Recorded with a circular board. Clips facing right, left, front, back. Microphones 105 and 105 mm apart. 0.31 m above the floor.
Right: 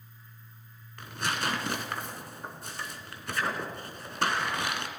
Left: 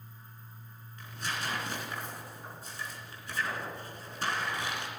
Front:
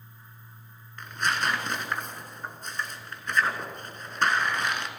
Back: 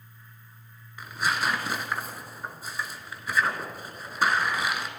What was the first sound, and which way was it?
Tearing paper, 95° right.